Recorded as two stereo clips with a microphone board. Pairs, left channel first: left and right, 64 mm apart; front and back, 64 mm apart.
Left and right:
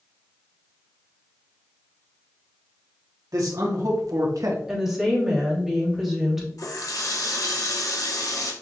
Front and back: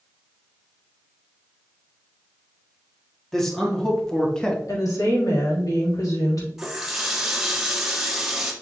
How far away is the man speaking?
About 2.5 m.